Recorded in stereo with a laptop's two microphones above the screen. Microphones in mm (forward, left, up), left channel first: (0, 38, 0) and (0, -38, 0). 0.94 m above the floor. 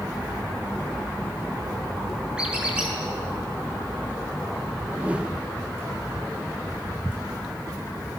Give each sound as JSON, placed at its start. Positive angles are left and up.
{"t": 2.4, "sound": "a squeak", "side_deg": -10, "distance_m": 7.5}
{"t": 5.0, "sound": "a whoosh", "side_deg": -15, "distance_m": 1.1}